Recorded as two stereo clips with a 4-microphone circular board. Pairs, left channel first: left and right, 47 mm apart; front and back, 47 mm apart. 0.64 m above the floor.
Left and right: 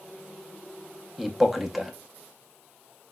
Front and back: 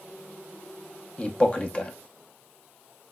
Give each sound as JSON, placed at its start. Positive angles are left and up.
{"t": 1.2, "sound": "a man speaking", "azimuth_deg": -10, "distance_m": 0.6}